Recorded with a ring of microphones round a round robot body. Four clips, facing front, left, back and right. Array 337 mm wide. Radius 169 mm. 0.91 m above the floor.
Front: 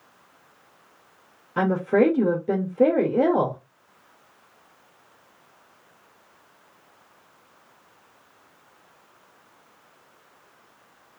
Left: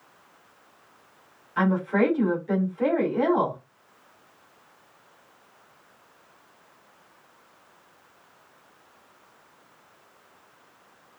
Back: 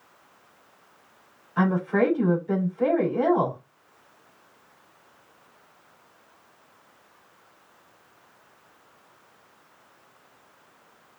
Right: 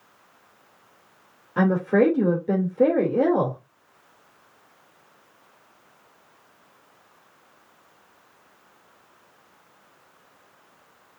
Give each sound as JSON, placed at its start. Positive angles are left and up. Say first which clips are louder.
{"t": 1.6, "sound": "a woman speaking", "louder": "right 3 dB, front 3 dB", "azimuth_deg": -40, "distance_m": 2.5}